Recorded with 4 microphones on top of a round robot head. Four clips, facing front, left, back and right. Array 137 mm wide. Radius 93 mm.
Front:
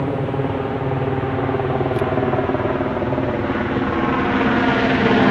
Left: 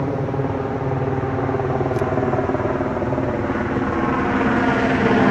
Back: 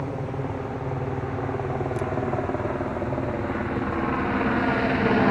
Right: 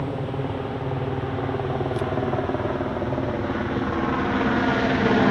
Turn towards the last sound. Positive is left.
turn(degrees=30)